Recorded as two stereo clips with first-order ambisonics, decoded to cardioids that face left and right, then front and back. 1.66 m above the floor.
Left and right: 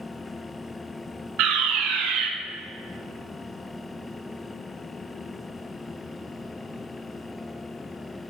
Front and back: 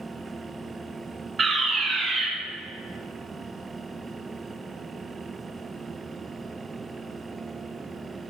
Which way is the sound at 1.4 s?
115° right.